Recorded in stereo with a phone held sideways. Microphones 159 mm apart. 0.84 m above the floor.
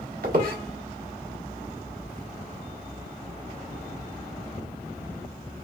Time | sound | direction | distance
0.2 | a squeak | 65° right (ahead or behind) | 1.4 m